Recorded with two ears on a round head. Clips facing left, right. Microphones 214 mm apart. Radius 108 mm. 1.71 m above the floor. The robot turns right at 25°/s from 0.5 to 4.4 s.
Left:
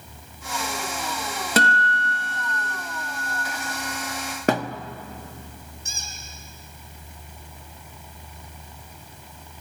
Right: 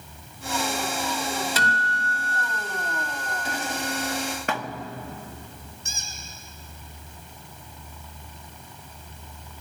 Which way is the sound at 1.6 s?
135° left.